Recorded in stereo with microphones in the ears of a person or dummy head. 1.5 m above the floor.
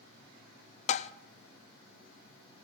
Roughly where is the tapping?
Left.